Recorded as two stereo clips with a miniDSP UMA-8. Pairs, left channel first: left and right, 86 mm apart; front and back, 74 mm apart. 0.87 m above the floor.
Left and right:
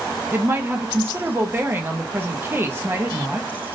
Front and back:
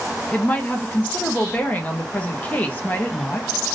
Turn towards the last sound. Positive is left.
turn(degrees=-50)